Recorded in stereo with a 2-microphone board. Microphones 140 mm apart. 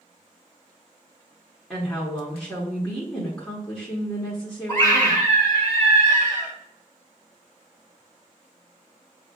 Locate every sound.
1.7 s a woman speaking: 5° left (ahead or behind), 1.5 m
4.7 s a scream: 20° left (ahead or behind), 2 m